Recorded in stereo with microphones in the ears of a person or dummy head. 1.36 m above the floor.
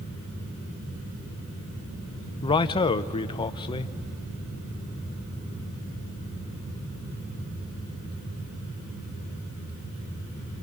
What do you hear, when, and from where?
2.4 s a man speaking: 25° left (ahead or behind), 0.7 m